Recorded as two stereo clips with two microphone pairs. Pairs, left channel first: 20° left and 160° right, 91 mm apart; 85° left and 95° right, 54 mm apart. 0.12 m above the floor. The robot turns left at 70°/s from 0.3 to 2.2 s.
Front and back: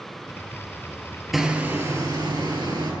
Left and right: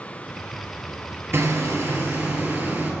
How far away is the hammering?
About 2 m.